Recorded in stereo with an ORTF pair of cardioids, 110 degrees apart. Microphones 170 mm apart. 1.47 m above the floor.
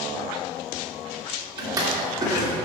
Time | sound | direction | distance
1.6 | a drawer | 20° right | 2.5 m